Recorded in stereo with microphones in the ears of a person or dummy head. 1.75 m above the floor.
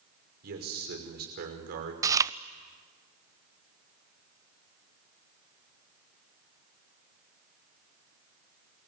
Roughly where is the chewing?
Centre.